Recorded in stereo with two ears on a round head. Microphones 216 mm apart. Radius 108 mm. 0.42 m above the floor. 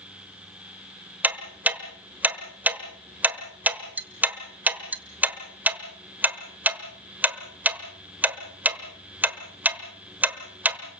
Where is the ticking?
5° right (ahead or behind), 1.2 m.